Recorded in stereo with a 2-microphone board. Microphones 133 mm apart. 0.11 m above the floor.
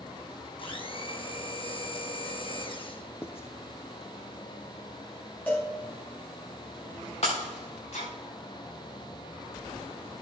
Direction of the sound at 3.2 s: 20° left (ahead or behind).